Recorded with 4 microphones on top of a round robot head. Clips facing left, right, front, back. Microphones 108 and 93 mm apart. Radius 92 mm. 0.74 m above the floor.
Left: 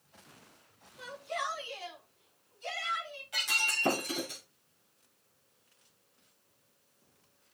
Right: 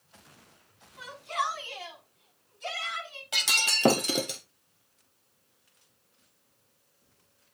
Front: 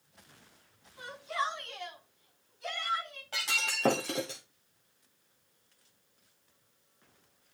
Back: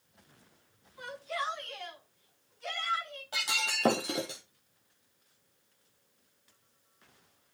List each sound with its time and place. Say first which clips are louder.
1.0 s a shout: right 5 dB, front 2 dB; 70° right, 7.5 m; by 3.2 s 80° right, 8 m
3.3 s breaking glass: right 4 dB, back 1 dB; 100° right, 1.3 m